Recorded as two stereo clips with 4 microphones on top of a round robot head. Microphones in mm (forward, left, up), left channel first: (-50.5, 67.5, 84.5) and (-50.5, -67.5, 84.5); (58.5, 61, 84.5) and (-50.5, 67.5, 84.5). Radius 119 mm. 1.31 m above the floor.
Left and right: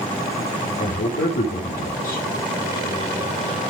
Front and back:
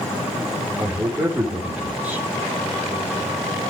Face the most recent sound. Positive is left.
turn(degrees=100)